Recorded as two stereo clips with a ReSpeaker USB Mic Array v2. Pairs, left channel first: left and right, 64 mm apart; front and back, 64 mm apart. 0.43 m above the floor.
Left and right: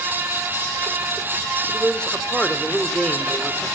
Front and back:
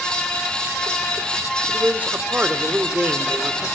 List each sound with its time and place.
1.7 s a man speaking: 145° left, 1.2 m